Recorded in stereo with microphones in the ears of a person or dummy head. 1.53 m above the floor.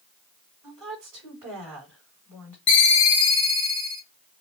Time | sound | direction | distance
0.6 | a woman speaking | 10° right (ahead or behind) | 3 m
2.7 | a ringtone | 30° left (ahead or behind) | 0.9 m